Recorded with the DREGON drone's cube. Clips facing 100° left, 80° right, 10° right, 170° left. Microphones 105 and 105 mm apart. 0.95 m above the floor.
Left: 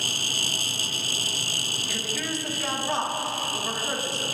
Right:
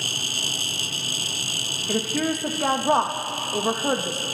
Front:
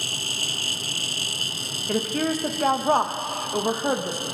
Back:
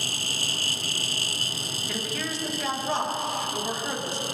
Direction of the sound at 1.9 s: 50° right.